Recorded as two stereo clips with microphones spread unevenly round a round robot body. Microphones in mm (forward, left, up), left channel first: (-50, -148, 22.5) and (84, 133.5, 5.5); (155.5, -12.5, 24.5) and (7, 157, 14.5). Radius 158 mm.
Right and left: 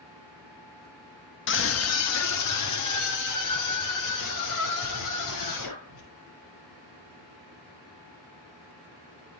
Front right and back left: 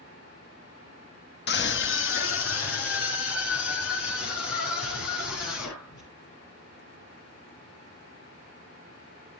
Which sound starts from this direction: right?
A scream, at 1.5 s.